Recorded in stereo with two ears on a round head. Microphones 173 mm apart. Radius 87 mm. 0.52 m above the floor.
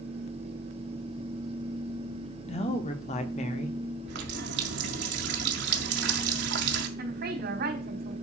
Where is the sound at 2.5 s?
30° left (ahead or behind), 1.5 m; by 3.8 s 35° left (ahead or behind), 1.6 m.